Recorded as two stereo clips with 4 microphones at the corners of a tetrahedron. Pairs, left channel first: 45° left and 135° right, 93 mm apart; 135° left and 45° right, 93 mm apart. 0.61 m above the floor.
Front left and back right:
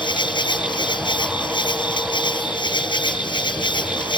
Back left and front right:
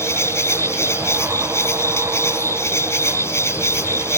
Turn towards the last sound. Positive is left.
turn(degrees=75)